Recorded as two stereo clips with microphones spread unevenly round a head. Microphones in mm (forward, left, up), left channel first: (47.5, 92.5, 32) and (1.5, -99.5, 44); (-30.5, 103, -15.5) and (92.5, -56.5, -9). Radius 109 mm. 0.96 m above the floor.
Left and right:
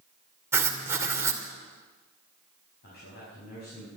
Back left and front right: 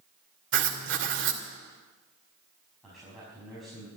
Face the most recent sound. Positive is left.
turn(degrees=40)